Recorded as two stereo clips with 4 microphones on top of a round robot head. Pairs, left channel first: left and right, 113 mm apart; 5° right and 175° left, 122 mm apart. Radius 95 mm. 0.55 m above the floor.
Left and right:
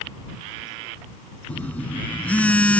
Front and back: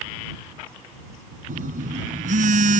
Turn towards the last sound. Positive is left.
turn(degrees=170)